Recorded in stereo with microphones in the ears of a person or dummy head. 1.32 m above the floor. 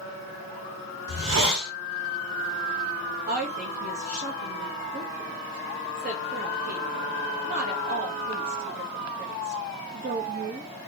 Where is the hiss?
75° right (ahead or behind), 1.9 m.